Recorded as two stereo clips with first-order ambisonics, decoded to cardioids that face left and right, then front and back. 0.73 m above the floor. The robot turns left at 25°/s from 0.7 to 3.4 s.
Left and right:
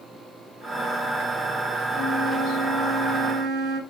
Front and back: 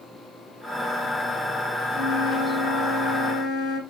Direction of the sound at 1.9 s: 5° right.